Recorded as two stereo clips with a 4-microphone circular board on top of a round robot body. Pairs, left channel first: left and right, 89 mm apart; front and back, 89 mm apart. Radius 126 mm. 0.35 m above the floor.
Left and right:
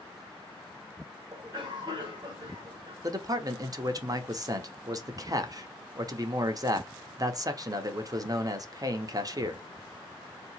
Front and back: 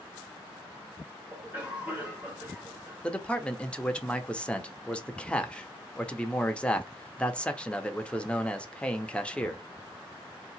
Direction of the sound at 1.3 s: 115° right.